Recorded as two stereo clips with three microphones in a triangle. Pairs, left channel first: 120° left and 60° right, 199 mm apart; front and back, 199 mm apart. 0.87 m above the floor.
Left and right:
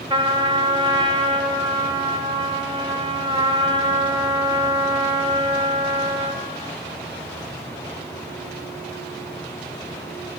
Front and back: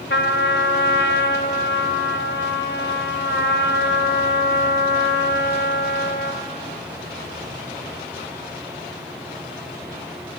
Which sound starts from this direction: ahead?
A trumpet, at 0.1 s.